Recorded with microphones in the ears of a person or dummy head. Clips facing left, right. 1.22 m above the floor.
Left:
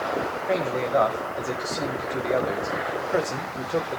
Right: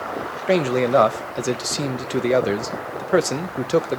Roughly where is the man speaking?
Right.